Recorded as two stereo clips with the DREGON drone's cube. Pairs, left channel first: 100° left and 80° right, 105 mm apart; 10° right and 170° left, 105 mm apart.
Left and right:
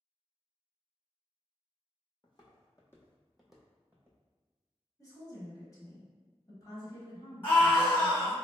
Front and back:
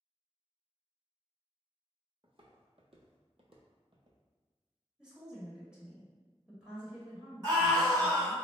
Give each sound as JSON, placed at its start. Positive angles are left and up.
{"t": 2.2, "sound": "footsteps", "azimuth_deg": 140, "distance_m": 0.9}
{"t": 5.0, "sound": "a woman speaking", "azimuth_deg": 95, "distance_m": 1.0}
{"t": 7.4, "sound": "a scream", "azimuth_deg": 155, "distance_m": 1.8}